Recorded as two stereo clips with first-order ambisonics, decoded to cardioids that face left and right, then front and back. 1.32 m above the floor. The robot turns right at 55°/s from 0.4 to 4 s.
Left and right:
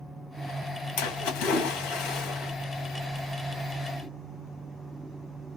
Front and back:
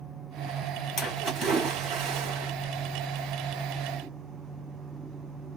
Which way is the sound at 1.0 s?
80° left.